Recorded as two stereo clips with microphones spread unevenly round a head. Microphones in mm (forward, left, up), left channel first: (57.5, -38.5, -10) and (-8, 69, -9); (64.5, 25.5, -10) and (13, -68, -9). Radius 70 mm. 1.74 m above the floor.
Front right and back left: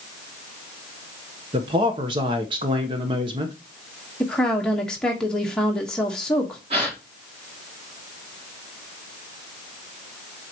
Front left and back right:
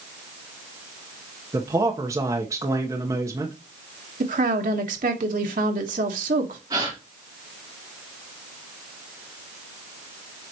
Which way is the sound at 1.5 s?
175° left.